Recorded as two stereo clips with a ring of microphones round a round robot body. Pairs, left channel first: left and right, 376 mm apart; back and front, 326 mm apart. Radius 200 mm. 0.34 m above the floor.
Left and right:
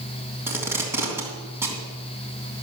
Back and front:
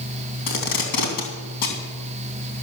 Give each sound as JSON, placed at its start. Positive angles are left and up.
{"t": 0.5, "sound": "tape being pulled", "azimuth_deg": -175, "distance_m": 3.0}